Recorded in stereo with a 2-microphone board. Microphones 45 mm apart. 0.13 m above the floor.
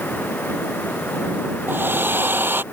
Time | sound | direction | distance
1.7 | a hair dryer | 50° right (ahead or behind) | ?